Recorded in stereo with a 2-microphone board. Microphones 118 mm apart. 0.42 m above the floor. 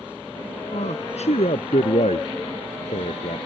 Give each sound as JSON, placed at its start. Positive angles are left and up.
{"t": 0.7, "sound": "a man speaking", "side_deg": 70}